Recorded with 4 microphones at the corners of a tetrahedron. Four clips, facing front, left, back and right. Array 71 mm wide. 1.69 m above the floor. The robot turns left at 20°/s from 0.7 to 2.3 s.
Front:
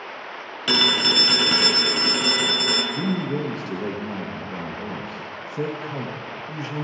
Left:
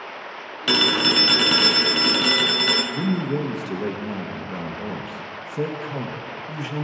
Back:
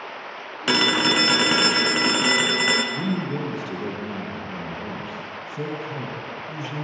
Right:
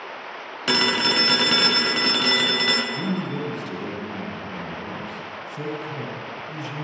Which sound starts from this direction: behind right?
A phone ringing, at 0.7 s.